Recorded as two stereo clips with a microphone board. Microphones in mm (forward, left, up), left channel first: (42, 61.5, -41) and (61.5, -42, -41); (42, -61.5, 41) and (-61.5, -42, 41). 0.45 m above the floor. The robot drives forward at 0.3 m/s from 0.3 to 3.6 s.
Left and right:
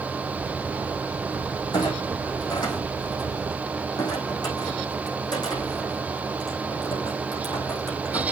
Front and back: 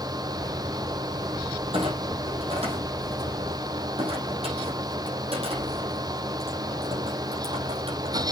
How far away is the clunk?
About 5 m.